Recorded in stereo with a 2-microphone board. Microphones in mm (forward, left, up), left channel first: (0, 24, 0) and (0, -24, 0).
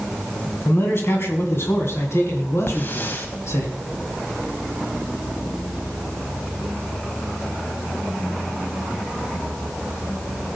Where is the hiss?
45° left (ahead or behind), 1.7 m.